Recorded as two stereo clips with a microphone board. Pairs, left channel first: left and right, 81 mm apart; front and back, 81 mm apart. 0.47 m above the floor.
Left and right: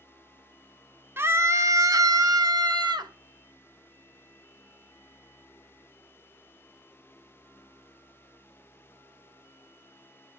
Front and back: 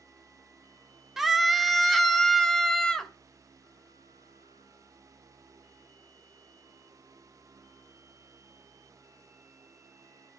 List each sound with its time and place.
1.2 s a scream: 95° right, 0.9 m; by 3.1 s 80° right, 1.6 m